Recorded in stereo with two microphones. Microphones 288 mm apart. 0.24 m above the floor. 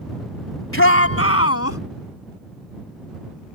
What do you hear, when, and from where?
0.7 s a shout: 45° left (ahead or behind); by 1.8 s 55° left (ahead or behind)